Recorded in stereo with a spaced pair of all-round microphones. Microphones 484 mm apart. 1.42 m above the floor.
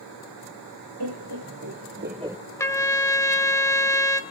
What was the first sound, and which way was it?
Laughter, 50° right (ahead or behind).